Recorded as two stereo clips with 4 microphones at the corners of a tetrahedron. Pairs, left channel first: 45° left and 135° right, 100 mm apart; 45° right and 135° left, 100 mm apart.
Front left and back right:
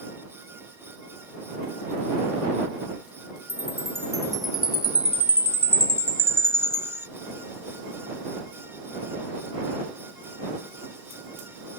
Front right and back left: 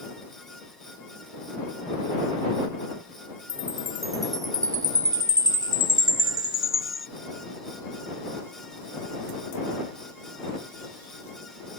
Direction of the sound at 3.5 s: 90° left.